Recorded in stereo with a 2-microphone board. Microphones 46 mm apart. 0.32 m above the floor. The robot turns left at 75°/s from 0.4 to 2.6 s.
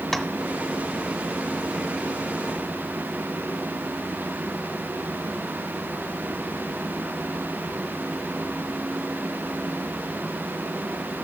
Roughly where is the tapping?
Centre.